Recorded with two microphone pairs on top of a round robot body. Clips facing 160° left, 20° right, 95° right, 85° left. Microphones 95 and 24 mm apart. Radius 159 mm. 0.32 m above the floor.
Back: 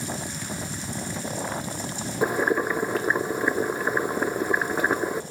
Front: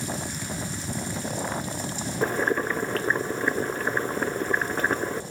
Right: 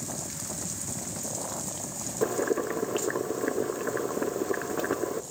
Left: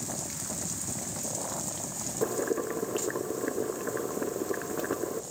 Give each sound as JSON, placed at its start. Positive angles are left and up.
{"t": 2.2, "sound": "boiling", "azimuth_deg": -150, "distance_m": 0.7}